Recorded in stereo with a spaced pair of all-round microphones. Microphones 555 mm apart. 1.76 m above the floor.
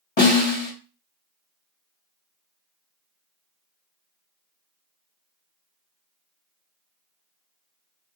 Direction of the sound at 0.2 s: 50° left (ahead or behind).